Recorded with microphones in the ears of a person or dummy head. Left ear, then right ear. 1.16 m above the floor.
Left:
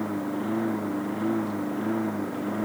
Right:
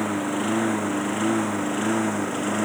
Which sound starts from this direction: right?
A lawn mower, at 0.0 s.